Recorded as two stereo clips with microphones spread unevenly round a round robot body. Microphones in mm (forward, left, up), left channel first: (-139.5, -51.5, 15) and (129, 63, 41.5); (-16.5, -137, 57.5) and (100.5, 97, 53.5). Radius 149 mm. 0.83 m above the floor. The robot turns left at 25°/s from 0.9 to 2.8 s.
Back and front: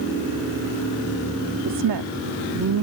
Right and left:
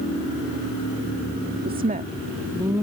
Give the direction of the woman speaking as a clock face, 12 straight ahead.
12 o'clock.